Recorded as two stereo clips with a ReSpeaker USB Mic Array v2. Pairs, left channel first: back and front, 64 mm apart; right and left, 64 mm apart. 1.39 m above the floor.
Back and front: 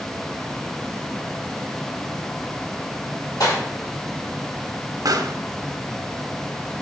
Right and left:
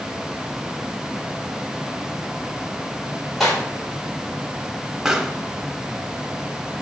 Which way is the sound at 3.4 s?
Straight behind.